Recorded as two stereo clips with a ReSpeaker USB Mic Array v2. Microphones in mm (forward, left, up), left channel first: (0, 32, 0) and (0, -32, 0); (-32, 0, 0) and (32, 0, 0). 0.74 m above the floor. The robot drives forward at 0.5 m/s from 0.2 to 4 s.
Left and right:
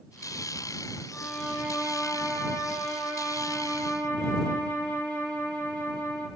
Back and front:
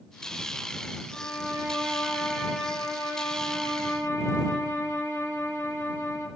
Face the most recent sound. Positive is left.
turn(degrees=130)